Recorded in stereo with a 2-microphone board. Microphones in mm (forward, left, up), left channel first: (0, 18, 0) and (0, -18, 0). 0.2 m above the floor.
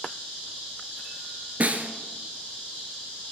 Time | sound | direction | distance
1.6 | a snare drum | 45° right (ahead or behind) | 1.4 m